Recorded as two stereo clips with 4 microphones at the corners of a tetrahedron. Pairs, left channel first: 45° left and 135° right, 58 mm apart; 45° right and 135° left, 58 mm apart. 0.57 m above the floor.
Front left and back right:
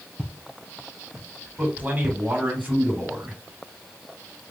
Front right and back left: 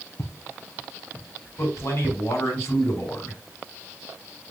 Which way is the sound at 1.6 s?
70° right.